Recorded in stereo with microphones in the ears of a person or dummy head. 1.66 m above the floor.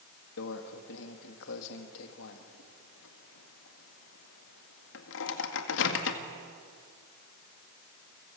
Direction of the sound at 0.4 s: 65° left (ahead or behind).